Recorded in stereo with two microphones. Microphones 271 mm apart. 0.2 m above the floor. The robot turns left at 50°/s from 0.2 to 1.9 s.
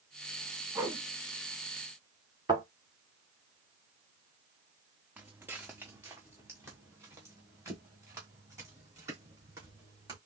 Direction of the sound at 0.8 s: 15° right (ahead or behind).